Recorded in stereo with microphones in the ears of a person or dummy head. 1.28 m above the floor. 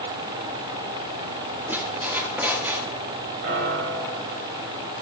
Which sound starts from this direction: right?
A piano, at 3.4 s.